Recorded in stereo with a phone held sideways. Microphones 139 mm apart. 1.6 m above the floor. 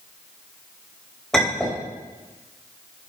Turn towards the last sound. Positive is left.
turn(degrees=5)  # may be behind; listen again after turning